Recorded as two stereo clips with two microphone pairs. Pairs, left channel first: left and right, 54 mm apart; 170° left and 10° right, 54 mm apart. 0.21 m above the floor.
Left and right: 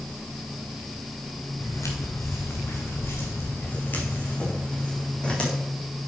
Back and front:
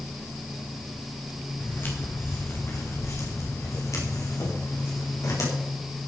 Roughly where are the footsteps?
Behind left.